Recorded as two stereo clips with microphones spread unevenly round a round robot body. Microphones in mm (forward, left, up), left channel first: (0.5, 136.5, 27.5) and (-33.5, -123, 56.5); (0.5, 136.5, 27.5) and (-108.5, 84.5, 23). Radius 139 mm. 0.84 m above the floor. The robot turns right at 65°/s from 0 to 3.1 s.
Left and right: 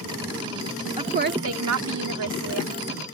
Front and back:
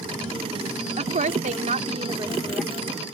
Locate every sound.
1.0 s a woman speaking: 170° right; by 3.0 s 35° right